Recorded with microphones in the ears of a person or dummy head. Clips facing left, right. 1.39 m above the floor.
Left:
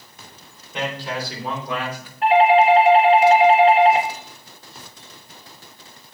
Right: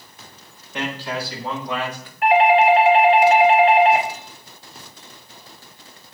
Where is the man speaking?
20° left (ahead or behind), 4 m; by 2.1 s 10° left (ahead or behind), 2.5 m.